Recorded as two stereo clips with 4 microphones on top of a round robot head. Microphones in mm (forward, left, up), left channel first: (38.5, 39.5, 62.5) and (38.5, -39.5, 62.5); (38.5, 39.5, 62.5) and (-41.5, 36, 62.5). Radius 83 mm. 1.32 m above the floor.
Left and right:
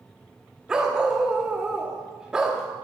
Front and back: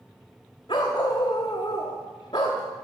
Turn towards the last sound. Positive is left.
turn(degrees=-15)